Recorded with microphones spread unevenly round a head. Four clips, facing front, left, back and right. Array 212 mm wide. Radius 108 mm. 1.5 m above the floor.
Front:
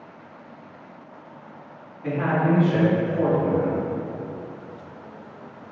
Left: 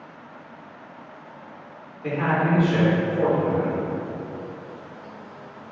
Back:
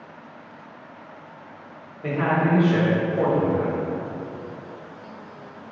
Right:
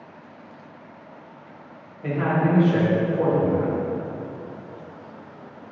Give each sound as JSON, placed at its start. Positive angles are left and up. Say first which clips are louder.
{"t": 2.0, "sound": "a man speaking", "louder": "even, even", "azimuth_deg": -155, "distance_m": 1.6}